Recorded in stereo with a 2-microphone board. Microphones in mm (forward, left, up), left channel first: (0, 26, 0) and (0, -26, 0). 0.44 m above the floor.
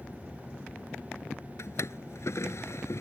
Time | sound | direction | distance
1.6 | a drawer | 60° left (ahead or behind) | ?